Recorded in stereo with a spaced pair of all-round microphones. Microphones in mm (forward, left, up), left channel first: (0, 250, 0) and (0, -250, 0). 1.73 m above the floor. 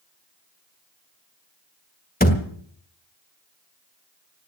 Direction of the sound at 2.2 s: 15° left (ahead or behind).